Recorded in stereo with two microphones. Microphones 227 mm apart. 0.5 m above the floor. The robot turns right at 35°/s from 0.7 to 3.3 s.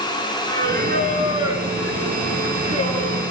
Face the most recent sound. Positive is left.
turn(degrees=45)